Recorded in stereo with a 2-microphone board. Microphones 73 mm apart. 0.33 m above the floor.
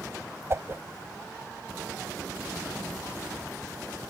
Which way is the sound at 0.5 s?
40° right (ahead or behind).